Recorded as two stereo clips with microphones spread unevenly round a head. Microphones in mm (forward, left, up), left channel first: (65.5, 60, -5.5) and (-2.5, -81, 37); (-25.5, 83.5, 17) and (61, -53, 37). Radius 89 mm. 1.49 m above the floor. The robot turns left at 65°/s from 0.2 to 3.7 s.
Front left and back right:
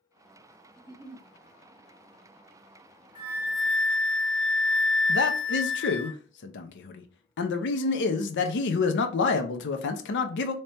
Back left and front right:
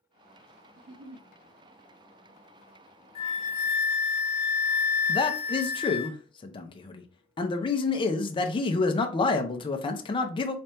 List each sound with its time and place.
0.8 s a giggle: 25° right, 0.6 m; by 1.3 s 55° right, 0.6 m
3.1 s a flute: 175° left, 0.7 m; by 6.1 s 140° left, 0.7 m
5.1 s a man speaking: 60° left, 0.6 m